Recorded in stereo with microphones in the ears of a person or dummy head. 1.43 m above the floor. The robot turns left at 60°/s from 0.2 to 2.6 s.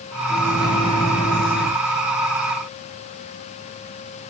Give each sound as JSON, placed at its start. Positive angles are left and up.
{"t": 0.3, "sound": "a microwave", "azimuth_deg": 180, "distance_m": 1.4}